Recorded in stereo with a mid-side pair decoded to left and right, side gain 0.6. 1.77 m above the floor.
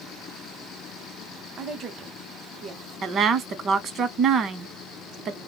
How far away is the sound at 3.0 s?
About 0.8 m.